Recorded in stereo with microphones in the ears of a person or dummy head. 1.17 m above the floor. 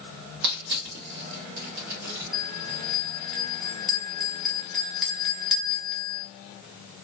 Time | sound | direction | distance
0.4 | crushing | 55° right (ahead or behind) | 0.9 m
2.3 | a bell | centre (ahead or behind) | 0.6 m